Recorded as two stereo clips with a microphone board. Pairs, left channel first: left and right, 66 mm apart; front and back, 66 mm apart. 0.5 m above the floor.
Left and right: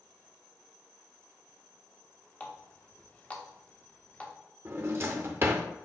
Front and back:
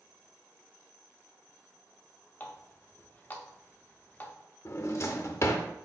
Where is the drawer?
40° right, 0.6 m.